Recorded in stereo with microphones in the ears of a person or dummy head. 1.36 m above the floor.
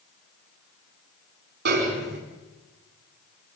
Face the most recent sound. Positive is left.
turn(degrees=-50)  # may be behind; listen again after turning